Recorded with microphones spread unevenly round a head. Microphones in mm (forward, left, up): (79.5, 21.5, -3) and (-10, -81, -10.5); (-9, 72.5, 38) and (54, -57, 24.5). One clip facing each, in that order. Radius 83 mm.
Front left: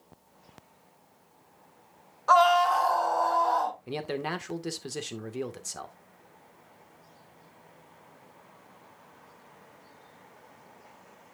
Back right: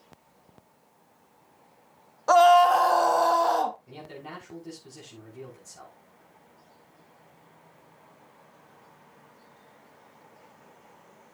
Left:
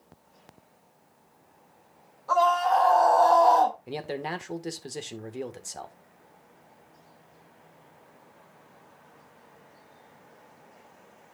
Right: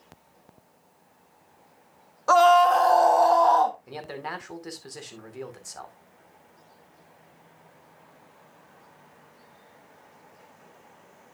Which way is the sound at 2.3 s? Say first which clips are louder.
Back right 5 dB, right 6 dB; 85° right.